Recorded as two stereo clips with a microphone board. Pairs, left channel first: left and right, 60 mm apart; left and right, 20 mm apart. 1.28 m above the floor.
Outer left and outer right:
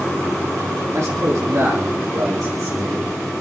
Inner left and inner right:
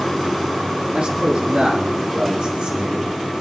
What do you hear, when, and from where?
0.9 s a man speaking: 65° right (ahead or behind), 3 m; by 3.1 s 75° right (ahead or behind), 4 m